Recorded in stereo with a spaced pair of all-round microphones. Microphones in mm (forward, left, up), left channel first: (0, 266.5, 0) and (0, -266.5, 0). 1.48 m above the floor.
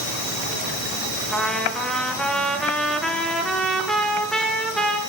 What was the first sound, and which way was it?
A trumpet, centre (ahead or behind).